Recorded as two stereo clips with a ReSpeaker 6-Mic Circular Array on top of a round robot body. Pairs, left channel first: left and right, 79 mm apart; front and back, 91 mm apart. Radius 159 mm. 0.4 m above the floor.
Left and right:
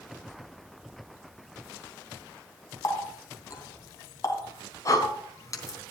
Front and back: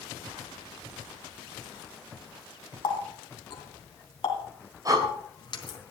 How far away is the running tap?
About 3 m.